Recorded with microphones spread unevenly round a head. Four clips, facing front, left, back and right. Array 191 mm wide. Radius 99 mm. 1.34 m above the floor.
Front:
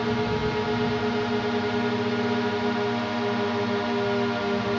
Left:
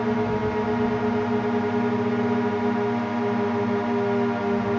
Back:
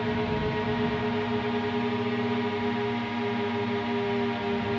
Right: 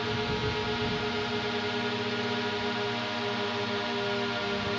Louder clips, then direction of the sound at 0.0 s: Left 8 dB, front 3 dB; 75° left.